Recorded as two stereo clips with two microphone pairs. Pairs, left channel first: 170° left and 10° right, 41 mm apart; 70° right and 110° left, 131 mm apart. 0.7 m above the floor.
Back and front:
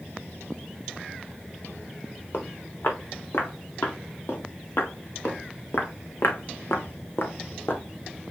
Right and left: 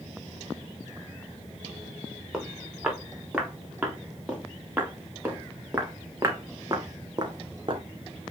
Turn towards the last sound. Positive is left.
turn(degrees=150)